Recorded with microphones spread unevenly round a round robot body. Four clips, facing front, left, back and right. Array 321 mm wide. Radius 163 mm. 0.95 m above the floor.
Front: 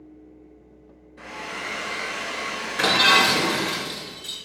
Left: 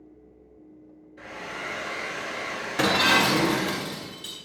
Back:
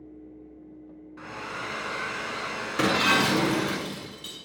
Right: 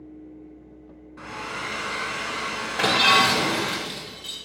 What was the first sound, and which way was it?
A hair dryer, 110° right.